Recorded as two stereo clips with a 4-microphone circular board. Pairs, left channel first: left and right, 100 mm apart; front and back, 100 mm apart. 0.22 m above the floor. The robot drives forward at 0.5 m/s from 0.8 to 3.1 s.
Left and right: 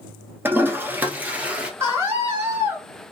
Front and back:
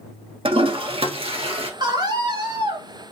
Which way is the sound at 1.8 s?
150° right.